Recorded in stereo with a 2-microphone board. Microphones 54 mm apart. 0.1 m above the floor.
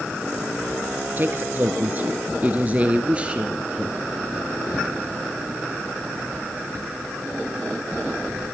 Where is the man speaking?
40° right (ahead or behind), 1.4 m; by 4.1 s 15° right (ahead or behind), 1.7 m.